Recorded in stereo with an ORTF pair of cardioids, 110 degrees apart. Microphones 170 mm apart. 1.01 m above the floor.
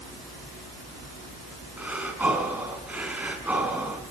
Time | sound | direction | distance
1.8 | breathing | 10° right | 4.5 m